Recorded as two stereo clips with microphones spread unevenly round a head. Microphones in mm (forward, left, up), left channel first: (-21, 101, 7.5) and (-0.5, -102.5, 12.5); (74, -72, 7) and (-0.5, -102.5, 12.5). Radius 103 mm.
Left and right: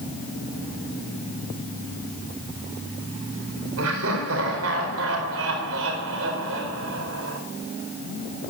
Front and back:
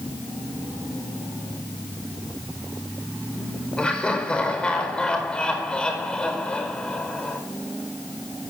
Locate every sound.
3.8 s laughter: 55° right, 4.5 m